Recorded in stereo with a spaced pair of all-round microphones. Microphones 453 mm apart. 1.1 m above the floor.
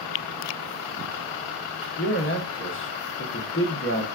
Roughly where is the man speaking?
Left.